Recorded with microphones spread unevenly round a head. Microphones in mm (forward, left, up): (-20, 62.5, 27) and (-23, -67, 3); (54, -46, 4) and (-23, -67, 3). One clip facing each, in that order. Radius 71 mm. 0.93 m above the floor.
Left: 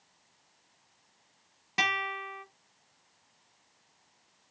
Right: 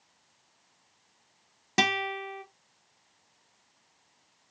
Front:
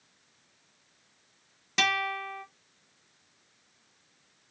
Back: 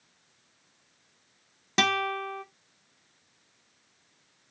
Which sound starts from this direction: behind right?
A guitar, at 1.8 s.